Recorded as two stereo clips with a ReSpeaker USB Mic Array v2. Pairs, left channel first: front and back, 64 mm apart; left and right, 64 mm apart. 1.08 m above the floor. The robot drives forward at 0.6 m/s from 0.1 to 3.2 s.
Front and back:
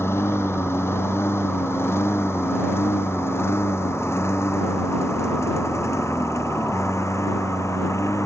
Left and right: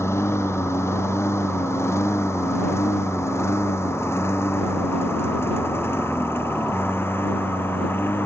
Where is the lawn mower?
50° left; by 8.3 s 40° left.